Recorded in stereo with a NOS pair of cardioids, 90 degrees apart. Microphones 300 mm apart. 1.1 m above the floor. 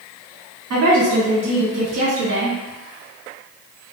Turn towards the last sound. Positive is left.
turn(degrees=-40)